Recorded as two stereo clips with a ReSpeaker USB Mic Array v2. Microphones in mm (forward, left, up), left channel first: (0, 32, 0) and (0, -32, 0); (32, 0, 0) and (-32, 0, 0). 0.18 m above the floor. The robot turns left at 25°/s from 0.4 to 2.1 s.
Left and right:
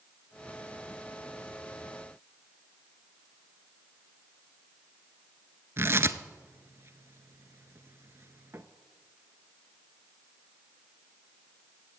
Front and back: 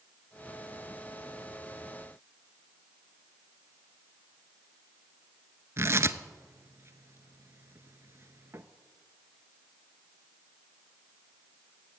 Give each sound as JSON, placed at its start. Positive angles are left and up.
{"t": 5.8, "sound": "tearing paper", "azimuth_deg": -135, "distance_m": 0.6}